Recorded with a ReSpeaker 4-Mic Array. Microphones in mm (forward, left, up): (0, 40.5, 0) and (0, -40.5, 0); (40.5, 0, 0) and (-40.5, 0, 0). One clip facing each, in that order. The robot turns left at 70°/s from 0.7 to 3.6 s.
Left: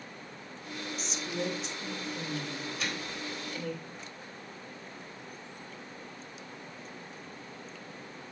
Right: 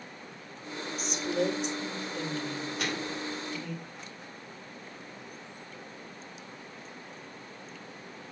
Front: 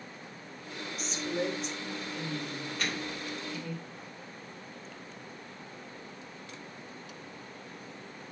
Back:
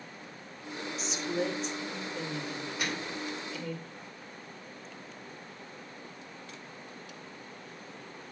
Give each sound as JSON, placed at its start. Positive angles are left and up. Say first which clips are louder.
{"t": 1.0, "sound": "a woman speaking", "louder": "right 7 dB, even", "azimuth_deg": -45, "distance_m": 2.5}
{"t": 2.8, "sound": "a microwave", "louder": "right 5 dB, even", "azimuth_deg": -105, "distance_m": 2.0}